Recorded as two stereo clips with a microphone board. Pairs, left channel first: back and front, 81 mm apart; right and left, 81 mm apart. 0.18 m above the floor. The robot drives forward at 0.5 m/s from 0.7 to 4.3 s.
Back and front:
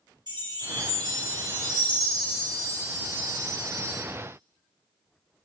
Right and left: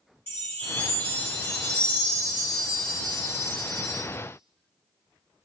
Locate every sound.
0.3 s a chime: 30° right, 3.5 m; by 4.0 s 50° right, 2.5 m